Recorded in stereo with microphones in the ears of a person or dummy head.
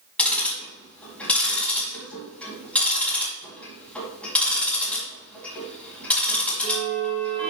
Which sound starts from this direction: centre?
Ticking, at 0.2 s.